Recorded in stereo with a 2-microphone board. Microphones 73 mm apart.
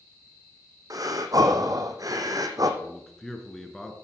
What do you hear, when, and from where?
0.9 s breathing: 55° right (ahead or behind), 1.4 m
2.8 s a man speaking: 5° left (ahead or behind), 2 m